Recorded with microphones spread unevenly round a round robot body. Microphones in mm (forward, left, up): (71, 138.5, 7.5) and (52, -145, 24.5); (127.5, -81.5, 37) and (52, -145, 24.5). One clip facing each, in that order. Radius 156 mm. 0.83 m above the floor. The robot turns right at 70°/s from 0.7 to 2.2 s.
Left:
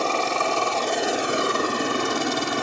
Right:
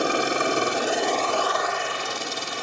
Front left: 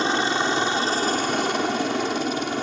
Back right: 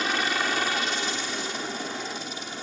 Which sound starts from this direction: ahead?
A helicopter, at 0.0 s.